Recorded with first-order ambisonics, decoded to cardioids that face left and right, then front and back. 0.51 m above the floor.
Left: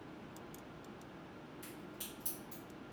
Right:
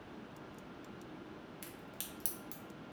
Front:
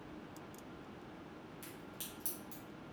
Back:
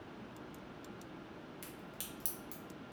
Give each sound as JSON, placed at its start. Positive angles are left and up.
{"t": 1.6, "sound": "a crack", "azimuth_deg": -115, "distance_m": 0.8}